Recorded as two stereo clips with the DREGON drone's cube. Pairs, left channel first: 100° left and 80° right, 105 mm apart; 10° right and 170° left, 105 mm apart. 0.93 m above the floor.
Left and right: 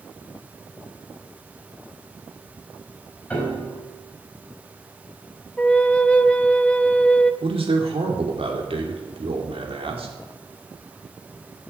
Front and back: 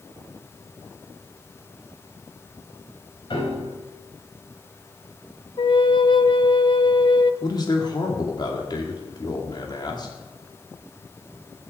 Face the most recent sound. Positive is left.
turn(degrees=-60)